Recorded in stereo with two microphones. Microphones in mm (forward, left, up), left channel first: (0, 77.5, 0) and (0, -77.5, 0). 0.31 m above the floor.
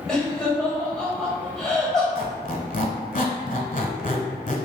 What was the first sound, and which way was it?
Laughter, 5° left (ahead or behind).